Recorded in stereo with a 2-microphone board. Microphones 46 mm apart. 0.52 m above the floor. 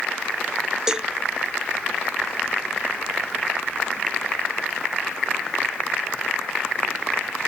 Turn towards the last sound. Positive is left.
turn(degrees=-15)  # may be behind; listen again after turning